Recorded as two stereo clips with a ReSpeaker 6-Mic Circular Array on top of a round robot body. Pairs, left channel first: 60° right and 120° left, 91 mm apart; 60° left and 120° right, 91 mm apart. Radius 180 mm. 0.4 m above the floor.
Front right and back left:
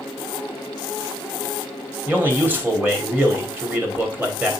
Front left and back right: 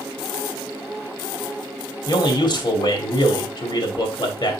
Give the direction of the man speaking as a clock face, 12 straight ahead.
10 o'clock.